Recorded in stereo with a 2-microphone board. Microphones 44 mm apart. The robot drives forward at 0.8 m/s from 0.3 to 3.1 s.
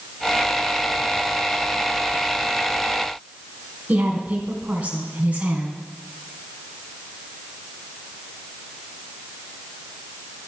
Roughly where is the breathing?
No breathing in this recording.